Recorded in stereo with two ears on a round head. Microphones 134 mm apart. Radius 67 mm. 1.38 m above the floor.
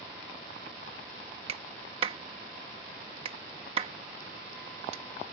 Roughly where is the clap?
Right.